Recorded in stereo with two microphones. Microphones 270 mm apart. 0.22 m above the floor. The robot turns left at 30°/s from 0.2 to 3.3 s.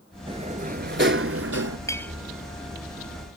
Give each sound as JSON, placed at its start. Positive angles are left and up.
{"t": 0.3, "sound": "a sliding door", "azimuth_deg": -20}
{"t": 1.9, "sound": "a clink", "side_deg": 10}